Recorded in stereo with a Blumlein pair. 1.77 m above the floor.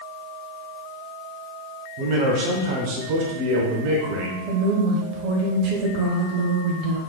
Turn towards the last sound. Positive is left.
turn(degrees=-40)